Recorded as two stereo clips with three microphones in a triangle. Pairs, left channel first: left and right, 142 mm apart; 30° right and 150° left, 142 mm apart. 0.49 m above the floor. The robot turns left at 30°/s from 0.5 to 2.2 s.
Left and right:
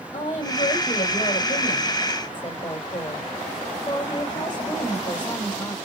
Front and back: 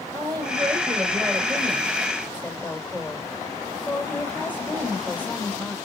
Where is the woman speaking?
95° left, 2.0 m; by 5.8 s 45° left, 2.0 m.